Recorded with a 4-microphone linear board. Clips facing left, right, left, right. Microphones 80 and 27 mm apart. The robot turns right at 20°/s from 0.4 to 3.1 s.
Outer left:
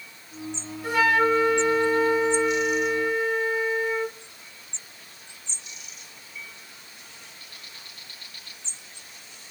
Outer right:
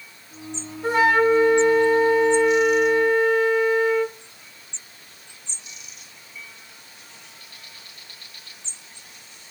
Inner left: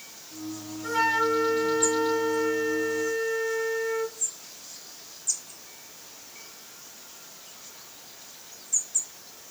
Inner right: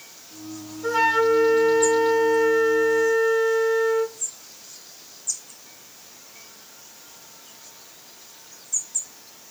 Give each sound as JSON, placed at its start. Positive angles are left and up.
{"t": 0.8, "sound": "a flute", "azimuth_deg": -150, "distance_m": 3.0}